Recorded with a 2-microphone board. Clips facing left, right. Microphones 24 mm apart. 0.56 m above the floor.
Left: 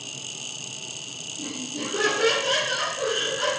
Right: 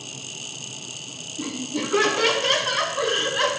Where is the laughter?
80° right, 5 m.